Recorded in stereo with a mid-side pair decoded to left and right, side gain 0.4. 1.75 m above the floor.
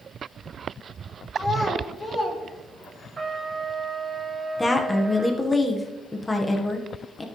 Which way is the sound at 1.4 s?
25° left.